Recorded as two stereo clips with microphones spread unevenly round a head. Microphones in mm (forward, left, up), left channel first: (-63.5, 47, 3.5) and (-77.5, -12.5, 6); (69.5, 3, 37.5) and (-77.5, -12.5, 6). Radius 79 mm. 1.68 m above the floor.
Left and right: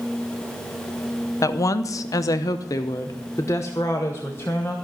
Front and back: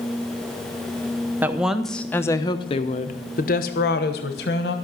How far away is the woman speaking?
About 0.9 m.